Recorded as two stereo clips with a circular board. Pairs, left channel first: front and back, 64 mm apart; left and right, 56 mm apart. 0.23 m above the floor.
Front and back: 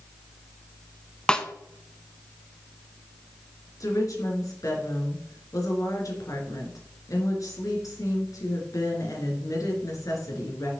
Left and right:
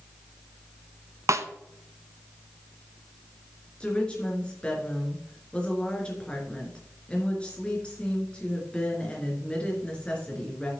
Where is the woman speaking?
20° left, 3.5 m.